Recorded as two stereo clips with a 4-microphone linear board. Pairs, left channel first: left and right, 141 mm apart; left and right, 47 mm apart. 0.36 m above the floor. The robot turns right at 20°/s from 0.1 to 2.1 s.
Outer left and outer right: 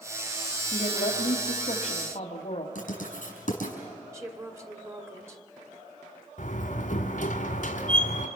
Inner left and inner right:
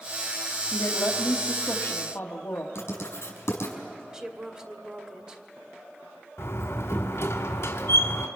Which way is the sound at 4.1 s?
20° right (ahead or behind).